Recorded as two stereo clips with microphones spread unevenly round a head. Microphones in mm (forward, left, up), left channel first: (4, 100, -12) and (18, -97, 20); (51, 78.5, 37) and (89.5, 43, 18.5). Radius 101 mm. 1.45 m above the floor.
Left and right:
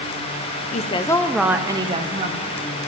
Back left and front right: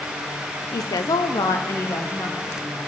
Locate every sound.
0.7 s a woman speaking: 140° left, 0.6 m; by 2.7 s 140° right, 1.3 m